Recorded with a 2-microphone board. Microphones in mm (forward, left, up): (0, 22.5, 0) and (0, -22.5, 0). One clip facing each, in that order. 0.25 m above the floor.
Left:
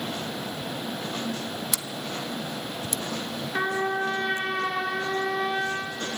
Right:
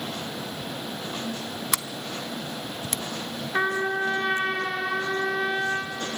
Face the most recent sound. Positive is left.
turn(degrees=-20)  # may be behind; listen again after turning